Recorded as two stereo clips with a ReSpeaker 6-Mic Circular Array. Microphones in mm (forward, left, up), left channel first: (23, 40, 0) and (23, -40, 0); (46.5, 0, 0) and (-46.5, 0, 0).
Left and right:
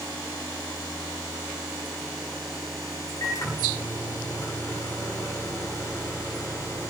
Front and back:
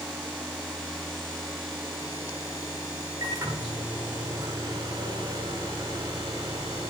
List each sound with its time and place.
3.2 s a microwave: 135° left, 7.5 m